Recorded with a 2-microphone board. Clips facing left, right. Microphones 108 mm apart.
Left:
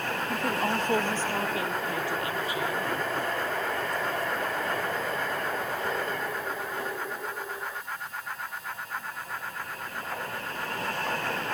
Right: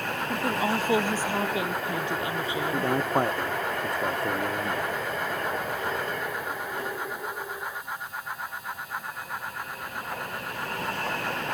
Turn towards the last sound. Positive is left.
turn(degrees=-60)  # may be behind; listen again after turning